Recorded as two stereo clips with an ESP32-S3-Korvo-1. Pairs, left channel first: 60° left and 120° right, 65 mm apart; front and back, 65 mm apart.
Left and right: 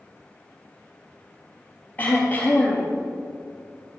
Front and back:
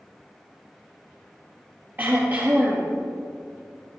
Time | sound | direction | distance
2.0 | throat clearing | 120° left | 3.5 m